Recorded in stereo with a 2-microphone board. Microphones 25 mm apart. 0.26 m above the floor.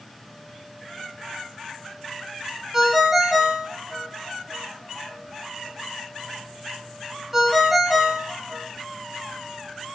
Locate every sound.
2.7 s a ringtone: 5° right (ahead or behind), 0.9 m